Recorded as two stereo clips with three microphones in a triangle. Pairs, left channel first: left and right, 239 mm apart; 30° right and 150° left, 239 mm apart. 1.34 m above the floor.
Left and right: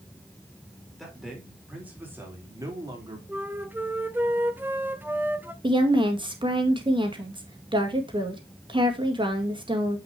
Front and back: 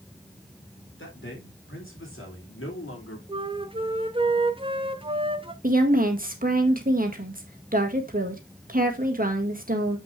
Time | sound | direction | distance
1.0 | a man speaking | straight ahead | 4 m
3.3 | a flute | 165° right | 0.7 m
5.6 | a woman speaking | 160° right | 1.8 m